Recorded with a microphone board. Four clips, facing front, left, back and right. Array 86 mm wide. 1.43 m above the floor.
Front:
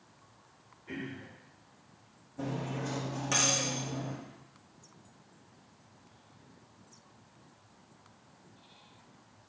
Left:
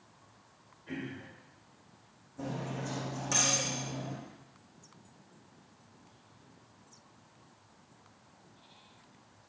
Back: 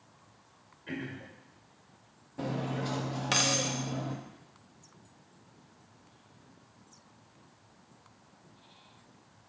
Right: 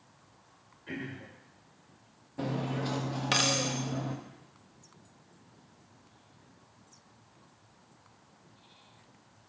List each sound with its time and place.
0.9 s throat clearing: 160° right, 2 m
2.4 s cutlery clinking: 120° right, 0.8 m